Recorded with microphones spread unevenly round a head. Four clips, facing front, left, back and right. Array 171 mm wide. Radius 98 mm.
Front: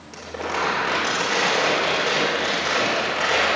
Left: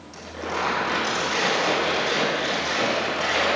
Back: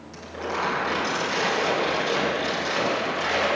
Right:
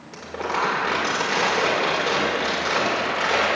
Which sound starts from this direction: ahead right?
Crumpling, at 0.1 s.